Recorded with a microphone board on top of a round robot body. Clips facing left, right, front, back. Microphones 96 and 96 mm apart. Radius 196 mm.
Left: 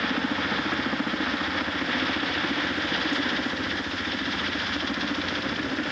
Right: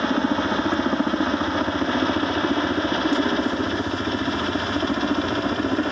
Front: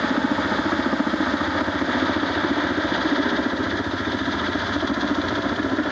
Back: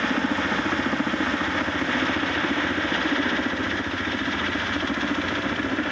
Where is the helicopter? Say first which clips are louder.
Right 6 dB, front 3 dB; 60° right.